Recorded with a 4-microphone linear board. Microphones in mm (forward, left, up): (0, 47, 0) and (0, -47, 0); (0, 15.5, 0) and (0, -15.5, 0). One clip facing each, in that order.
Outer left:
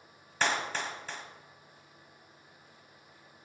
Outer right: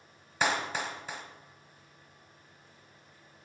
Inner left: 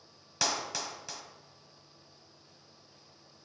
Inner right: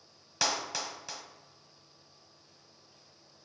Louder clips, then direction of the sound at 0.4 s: Outer right 1 dB, inner right 1 dB; 10° right (ahead or behind).